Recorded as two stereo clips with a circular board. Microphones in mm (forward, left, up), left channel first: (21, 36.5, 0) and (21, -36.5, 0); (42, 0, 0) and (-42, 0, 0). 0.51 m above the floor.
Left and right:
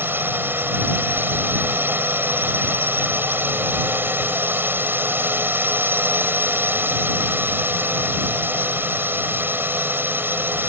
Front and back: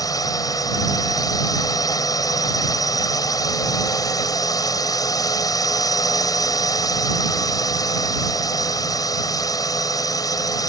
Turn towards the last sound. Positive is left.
turn(degrees=-35)